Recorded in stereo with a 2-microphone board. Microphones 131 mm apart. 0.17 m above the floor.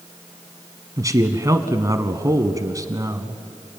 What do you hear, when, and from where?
1.0 s a man speaking: 25° right (ahead or behind), 1.3 m